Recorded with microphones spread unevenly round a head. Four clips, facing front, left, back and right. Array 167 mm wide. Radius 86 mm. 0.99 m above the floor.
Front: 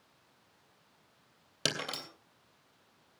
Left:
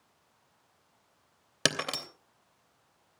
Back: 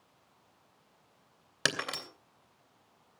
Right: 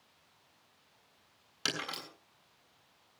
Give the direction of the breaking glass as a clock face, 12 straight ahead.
9 o'clock.